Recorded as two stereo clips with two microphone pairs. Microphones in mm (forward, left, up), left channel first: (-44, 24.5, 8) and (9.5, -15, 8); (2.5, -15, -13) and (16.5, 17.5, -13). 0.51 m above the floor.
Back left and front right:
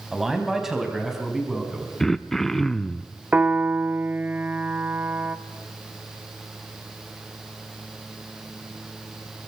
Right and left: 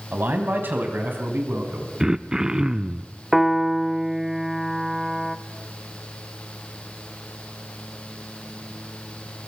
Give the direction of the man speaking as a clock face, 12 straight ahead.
10 o'clock.